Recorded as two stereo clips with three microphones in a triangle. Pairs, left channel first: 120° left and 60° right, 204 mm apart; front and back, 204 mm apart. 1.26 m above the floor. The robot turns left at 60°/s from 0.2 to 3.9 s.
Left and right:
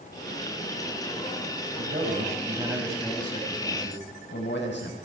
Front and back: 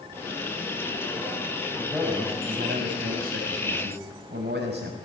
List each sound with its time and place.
1.8 s a man speaking: 85° right, 7 m; by 5.0 s 145° left, 7 m